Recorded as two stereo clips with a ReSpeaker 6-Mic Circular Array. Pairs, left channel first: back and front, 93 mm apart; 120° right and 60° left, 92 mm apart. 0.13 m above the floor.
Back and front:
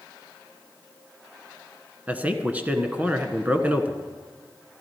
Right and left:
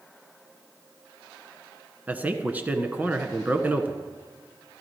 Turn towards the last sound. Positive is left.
turn(degrees=35)